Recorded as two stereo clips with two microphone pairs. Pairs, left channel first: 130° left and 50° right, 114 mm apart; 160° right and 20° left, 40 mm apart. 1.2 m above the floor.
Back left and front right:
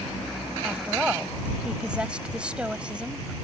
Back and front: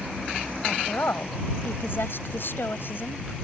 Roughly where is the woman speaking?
Behind right.